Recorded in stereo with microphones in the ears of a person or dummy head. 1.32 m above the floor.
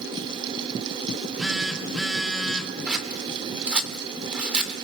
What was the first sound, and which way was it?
A phone buzzing, centre (ahead or behind).